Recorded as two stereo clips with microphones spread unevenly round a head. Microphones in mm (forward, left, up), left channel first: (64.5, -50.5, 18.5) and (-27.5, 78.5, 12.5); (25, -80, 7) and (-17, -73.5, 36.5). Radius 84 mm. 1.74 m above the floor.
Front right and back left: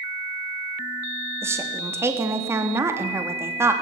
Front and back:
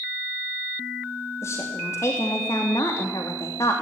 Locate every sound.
1.4 s a woman speaking: 50° left, 3 m